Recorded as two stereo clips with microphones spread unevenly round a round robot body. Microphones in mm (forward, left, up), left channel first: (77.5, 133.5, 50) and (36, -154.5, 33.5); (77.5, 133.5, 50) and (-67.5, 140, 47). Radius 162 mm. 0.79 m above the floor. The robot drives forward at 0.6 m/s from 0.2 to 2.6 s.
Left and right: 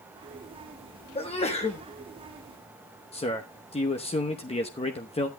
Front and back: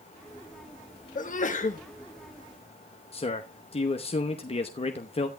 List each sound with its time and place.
1.1 s a sneeze: 10° left, 1.4 m; by 1.8 s 15° left, 1.0 m
3.1 s a man speaking: 15° left, 0.9 m